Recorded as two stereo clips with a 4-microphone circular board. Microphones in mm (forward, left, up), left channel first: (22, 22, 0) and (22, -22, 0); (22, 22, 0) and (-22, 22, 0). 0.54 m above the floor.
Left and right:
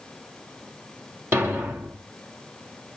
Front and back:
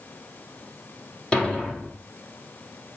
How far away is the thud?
About 4 m.